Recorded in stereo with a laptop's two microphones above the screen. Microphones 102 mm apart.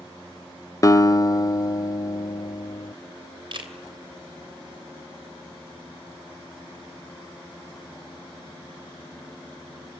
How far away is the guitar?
About 0.6 m.